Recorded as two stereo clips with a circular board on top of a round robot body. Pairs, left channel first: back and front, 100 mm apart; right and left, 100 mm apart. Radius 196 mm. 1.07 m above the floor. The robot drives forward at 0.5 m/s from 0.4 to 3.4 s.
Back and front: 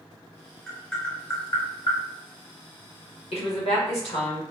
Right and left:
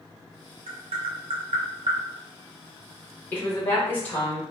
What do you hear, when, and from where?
0.7 s tapping: 85° left, 0.7 m; by 2.0 s 130° left, 0.9 m
3.3 s a woman speaking: 165° right, 1.1 m